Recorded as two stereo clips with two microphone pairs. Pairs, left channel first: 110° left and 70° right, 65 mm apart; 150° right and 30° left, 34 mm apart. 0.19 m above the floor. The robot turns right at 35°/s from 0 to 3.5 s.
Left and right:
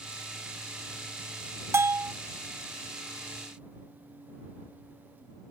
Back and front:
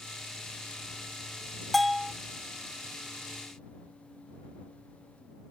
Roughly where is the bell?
Right.